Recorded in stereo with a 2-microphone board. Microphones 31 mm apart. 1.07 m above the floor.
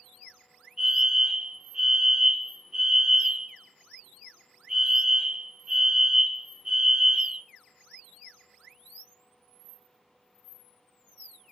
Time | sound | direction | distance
0.8 | a fire alarm | 10° right (ahead or behind) | 1.3 m